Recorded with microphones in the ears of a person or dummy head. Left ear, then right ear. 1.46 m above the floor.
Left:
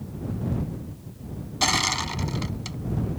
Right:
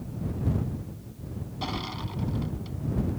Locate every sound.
1.6 s crushing: 60° left (ahead or behind)